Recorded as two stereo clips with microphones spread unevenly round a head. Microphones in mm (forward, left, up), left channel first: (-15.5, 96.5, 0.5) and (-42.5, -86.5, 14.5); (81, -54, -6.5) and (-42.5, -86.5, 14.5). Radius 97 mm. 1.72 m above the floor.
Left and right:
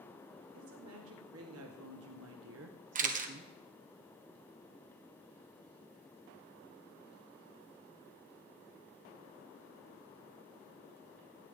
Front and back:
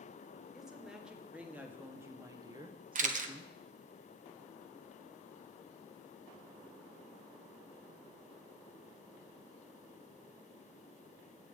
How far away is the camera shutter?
About 1.4 m.